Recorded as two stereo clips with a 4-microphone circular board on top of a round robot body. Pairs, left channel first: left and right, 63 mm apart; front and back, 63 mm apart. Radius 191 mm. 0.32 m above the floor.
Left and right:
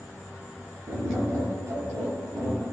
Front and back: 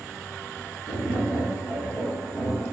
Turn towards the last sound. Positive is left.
turn(degrees=-50)